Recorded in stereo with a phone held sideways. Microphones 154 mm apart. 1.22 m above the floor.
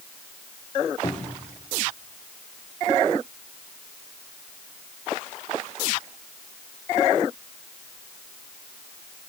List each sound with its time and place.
1.0 s a cupboard door: 35° left (ahead or behind), 1.7 m